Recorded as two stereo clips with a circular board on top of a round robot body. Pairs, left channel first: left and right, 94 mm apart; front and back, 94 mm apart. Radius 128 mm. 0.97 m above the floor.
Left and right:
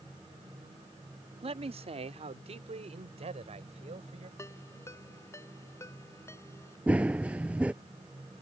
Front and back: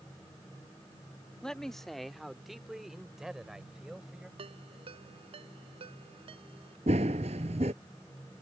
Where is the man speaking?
85° right; by 4.3 s 95° right.